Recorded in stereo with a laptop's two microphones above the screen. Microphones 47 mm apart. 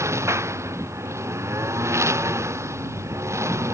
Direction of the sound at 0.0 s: 85° right.